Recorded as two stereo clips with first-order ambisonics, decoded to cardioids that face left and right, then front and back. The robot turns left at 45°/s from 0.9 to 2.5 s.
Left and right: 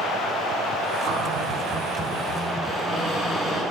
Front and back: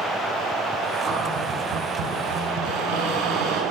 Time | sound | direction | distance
1.0 | a cupboard door | 125° right | 6.5 m